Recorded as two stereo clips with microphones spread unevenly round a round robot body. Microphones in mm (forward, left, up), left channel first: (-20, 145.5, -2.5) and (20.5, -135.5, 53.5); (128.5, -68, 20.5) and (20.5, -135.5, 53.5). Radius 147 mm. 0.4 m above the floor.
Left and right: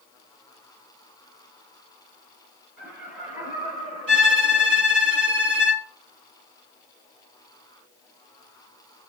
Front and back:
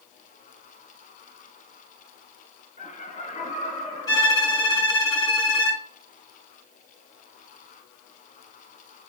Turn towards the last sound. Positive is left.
turn(degrees=-25)